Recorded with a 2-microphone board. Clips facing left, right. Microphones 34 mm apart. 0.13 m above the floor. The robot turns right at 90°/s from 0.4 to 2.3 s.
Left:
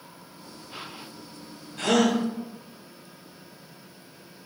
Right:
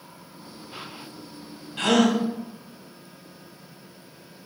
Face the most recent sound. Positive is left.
turn(degrees=-35)